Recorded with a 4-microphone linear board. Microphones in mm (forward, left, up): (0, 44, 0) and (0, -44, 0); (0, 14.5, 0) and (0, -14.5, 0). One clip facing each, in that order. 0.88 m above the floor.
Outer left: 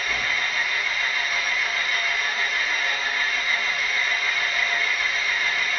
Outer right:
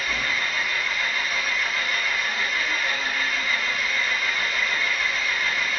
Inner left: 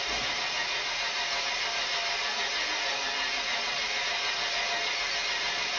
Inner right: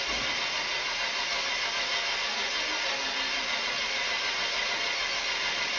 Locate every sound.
0.0 s an engine running: centre (ahead or behind), 1.5 m